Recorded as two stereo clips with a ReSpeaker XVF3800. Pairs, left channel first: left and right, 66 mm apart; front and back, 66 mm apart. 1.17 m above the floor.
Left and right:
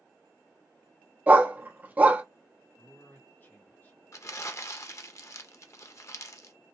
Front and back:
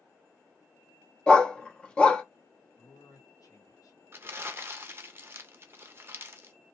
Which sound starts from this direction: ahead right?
A dog barking, at 1.3 s.